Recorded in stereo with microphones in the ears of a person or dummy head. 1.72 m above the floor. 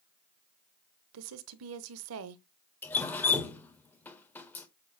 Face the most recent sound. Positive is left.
turn(degrees=10)  # may be behind; listen again after turning